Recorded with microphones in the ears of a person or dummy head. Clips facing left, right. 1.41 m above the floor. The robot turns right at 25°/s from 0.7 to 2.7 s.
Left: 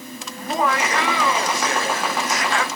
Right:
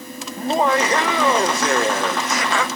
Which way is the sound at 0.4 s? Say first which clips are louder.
Right 4 dB; 160° right.